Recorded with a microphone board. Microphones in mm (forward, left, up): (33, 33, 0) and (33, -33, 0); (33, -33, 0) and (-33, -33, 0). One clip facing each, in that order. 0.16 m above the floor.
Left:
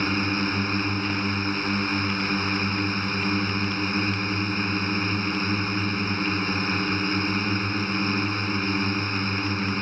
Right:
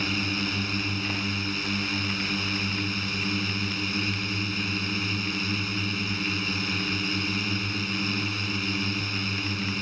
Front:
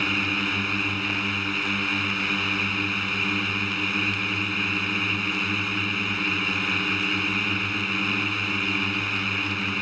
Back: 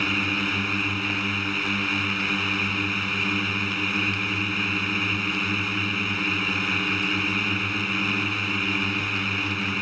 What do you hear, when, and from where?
0.0 s a drone: 90° left